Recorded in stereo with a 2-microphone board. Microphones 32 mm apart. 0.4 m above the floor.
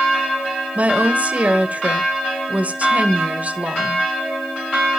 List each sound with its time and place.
0.8 s a woman speaking: 45° right (ahead or behind), 1.8 m